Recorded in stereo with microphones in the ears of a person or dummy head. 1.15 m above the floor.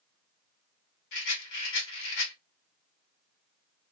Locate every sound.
1.1 s a rattle: 75° left (ahead or behind), 1.5 m